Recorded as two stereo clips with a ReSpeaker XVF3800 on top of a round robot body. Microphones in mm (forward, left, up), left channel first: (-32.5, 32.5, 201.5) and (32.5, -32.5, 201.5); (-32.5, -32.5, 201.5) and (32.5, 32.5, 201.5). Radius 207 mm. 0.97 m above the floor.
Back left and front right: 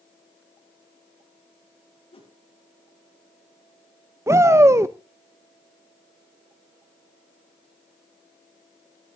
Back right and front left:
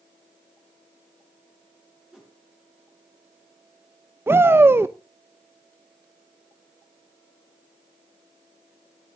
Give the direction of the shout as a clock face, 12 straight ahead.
12 o'clock.